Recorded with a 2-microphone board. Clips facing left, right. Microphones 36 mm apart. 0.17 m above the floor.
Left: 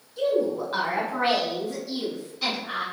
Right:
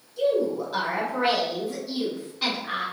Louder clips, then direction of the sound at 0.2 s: Even; 30° left (ahead or behind).